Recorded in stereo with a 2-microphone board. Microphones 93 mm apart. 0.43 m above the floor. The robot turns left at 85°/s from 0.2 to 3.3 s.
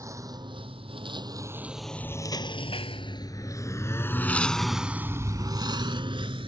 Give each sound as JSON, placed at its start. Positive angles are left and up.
{"t": 0.0, "sound": "a lawn mower", "side_deg": -35}